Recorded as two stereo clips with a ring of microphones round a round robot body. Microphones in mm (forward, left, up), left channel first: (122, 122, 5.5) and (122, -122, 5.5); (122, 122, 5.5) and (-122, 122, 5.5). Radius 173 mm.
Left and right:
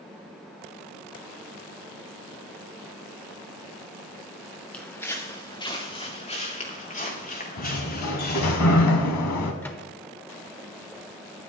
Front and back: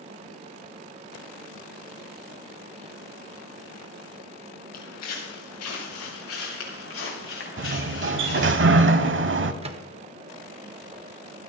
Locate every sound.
4.7 s footsteps: 5° left, 3 m; by 8.6 s 40° left, 6 m
7.6 s a sliding door: 135° left, 0.9 m
9.6 s a microwave: 160° left, 0.8 m